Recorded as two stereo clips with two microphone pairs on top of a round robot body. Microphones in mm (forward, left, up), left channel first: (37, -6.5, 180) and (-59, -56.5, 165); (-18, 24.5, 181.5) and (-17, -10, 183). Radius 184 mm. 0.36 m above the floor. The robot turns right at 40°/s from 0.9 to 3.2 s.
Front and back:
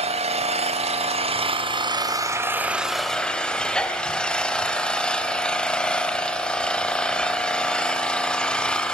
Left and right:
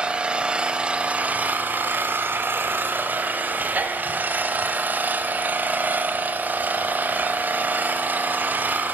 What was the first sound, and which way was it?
An engine running, 150° right.